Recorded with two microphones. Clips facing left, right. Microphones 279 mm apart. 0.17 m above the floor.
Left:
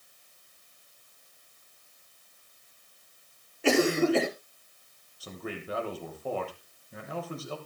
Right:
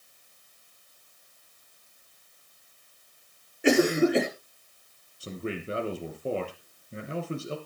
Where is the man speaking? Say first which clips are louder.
Right 5 dB; 30° right (ahead or behind), 3 m.